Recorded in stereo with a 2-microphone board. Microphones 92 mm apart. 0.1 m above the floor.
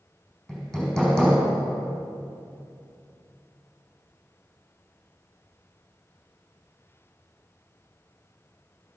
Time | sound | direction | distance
0.5 | hammering | 10° left (ahead or behind) | 4.5 m